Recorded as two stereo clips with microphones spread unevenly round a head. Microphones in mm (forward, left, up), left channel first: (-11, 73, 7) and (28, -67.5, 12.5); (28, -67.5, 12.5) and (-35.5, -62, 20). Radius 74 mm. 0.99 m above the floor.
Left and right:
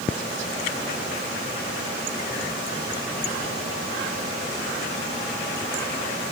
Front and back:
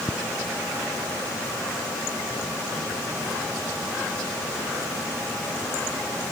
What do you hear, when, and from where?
Only background noise.